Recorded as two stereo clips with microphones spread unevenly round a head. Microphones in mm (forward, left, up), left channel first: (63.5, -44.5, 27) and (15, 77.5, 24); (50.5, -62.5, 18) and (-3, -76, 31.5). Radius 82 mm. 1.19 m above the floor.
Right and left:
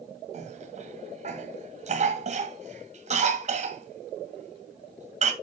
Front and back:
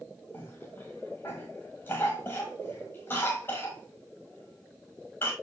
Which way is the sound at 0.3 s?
75° left.